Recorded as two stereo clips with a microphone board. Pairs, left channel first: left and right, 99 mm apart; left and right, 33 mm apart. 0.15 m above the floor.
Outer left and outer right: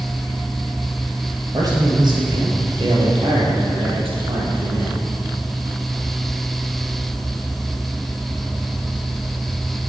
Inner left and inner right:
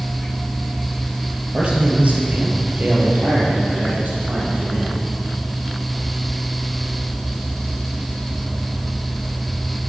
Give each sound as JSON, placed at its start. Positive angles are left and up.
{"t": 1.5, "sound": "a man speaking", "side_deg": -35, "distance_m": 3.5}